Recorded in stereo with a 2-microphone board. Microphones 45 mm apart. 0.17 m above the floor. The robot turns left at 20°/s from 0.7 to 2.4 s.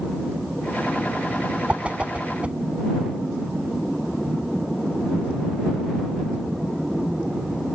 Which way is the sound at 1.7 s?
30° right (ahead or behind).